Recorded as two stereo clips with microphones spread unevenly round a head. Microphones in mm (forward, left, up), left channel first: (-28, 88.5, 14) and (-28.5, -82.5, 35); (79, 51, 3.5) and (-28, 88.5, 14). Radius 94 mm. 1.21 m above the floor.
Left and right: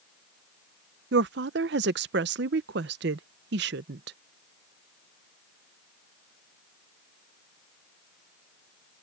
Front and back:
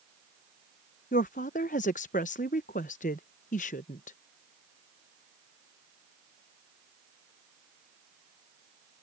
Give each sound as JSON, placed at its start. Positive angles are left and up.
{"t": 1.1, "sound": "a woman speaking", "azimuth_deg": -55}